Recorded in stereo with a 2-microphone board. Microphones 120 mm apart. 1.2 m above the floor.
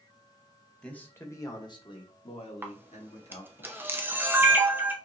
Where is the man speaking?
10° left (ahead or behind), 1.1 m; by 3.6 s 70° left (ahead or behind), 2 m.